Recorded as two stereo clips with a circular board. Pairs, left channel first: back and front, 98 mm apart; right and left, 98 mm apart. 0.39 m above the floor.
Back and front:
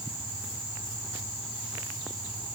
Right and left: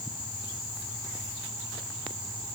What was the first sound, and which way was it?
Only background noise.